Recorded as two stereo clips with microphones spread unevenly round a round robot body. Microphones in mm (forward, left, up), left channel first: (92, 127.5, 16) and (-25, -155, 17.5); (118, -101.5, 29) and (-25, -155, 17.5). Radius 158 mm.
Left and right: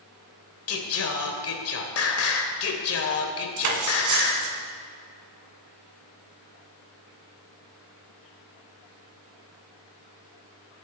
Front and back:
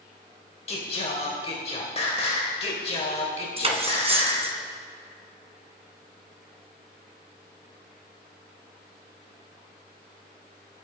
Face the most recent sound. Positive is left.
turn(degrees=-110)